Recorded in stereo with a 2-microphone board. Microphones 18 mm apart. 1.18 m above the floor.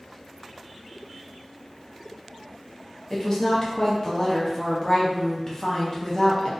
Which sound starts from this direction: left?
A woman speaking, at 3.1 s.